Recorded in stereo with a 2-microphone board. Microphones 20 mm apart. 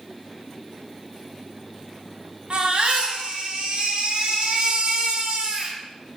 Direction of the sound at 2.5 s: 60° right (ahead or behind).